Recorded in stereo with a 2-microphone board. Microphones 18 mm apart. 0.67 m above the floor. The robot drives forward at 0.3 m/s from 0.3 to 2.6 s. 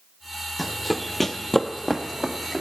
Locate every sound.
0.6 s running footsteps: 10° right (ahead or behind), 1.1 m; by 2.6 s 20° left (ahead or behind), 1.9 m